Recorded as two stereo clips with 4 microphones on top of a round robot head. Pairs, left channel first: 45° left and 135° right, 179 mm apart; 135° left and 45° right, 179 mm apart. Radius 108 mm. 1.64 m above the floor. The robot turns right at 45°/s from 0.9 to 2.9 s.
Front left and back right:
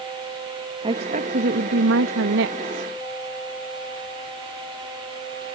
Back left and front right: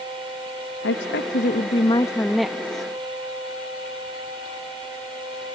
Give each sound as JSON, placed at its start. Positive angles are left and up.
{"t": 0.8, "sound": "a woman speaking", "azimuth_deg": 160}